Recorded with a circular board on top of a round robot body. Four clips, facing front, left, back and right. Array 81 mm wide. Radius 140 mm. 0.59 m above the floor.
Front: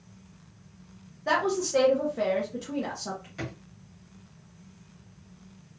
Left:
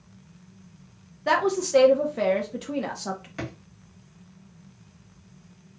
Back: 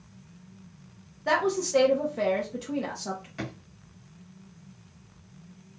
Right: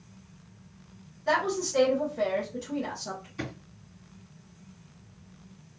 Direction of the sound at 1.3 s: 100° left.